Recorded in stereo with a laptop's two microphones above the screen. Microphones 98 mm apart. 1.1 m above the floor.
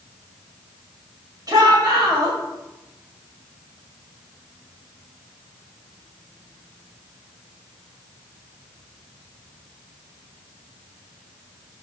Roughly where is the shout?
Right.